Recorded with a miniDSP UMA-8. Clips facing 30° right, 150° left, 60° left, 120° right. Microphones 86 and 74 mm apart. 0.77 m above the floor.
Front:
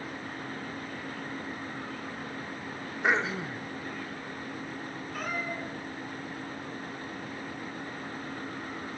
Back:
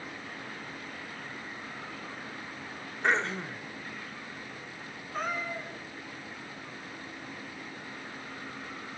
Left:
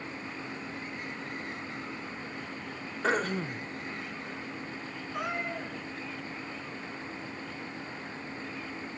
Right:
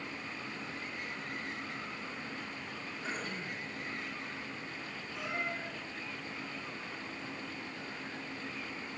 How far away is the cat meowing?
About 4 m.